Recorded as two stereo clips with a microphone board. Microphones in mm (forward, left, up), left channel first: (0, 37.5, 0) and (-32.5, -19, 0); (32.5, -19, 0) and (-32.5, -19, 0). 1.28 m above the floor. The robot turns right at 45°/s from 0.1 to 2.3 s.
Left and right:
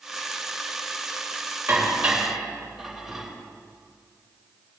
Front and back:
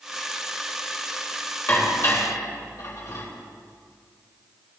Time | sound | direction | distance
1.7 | dishes clattering | 60° right | 4 m